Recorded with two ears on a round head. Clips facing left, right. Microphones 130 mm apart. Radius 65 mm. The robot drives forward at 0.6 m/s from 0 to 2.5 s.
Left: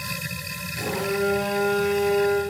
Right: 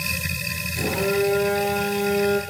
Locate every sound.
0.8 s a phone buzzing: 30° right (ahead or behind), 5 m; by 2.4 s 35° right (ahead or behind), 4 m